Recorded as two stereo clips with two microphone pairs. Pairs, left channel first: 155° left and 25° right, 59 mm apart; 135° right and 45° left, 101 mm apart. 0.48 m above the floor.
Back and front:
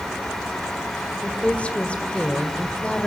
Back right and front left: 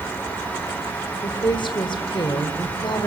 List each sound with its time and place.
1.2 s a woman speaking: 145° right, 2 m